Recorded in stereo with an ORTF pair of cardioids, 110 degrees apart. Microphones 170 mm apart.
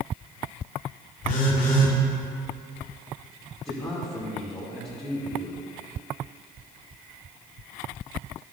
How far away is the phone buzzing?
About 2 m.